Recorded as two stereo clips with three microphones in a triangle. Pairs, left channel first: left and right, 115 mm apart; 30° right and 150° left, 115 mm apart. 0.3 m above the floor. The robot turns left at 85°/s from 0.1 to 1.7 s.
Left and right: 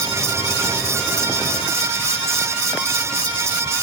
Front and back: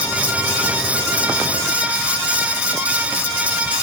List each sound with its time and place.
Only background noise.